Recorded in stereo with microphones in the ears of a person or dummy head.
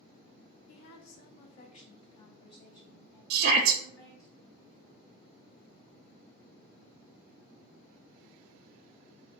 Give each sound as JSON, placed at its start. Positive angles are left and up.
{"t": 0.7, "sound": "a woman speaking", "side_deg": 65, "distance_m": 0.5}
{"t": 3.3, "sound": "a shout", "side_deg": -60, "distance_m": 0.5}